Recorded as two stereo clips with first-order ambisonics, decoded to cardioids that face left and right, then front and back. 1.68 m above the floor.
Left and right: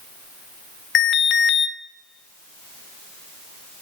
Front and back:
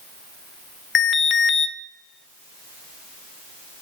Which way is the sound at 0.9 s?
50° left.